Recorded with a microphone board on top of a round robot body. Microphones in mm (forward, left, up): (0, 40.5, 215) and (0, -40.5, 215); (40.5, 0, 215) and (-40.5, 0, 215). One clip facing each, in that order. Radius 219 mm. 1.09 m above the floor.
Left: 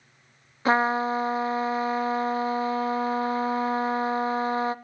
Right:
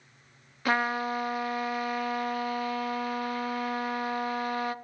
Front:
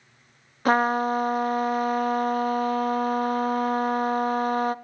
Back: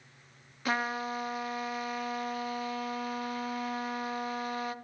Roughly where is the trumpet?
Ahead left.